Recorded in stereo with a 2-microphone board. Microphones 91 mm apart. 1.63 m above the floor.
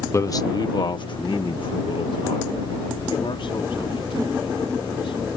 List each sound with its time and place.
0.1 s a man speaking: 30° left (ahead or behind); by 5.2 s 70° left (ahead or behind)